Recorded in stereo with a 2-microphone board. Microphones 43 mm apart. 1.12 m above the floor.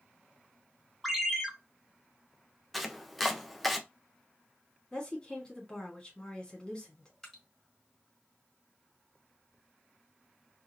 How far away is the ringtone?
About 1.0 m.